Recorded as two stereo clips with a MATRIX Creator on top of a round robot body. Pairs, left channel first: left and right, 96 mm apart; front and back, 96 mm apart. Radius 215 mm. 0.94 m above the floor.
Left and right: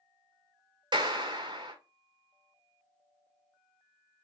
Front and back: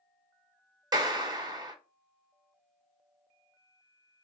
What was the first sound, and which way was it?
A clap, 130° right.